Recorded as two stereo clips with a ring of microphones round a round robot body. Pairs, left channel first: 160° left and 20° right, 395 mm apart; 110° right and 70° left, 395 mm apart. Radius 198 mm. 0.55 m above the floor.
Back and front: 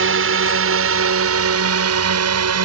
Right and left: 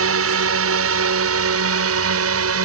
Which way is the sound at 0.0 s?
25° left.